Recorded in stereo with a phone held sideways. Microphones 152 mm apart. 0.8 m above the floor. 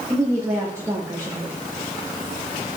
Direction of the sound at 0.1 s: 20° right (ahead or behind).